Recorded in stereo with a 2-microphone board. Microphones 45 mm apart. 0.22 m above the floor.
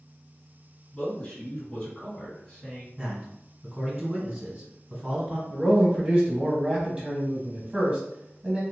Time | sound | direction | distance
0.9 | a man speaking | 15° left (ahead or behind) | 1.9 m
3.0 | a man speaking | 20° right (ahead or behind) | 1.8 m
5.5 | a man speaking | 25° right (ahead or behind) | 1.1 m